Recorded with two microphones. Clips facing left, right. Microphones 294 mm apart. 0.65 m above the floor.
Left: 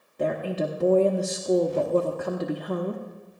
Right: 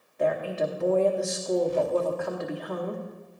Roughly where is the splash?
I don't hear a splash.